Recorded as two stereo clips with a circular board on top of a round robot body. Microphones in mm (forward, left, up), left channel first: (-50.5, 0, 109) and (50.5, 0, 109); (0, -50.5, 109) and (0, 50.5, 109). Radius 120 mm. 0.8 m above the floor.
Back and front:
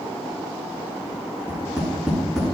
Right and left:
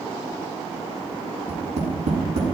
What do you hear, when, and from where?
1.5 s tapping: 85° left, 7 m